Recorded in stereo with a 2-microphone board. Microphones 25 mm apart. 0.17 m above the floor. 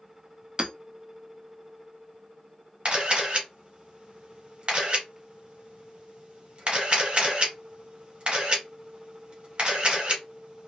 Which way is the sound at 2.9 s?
40° right (ahead or behind).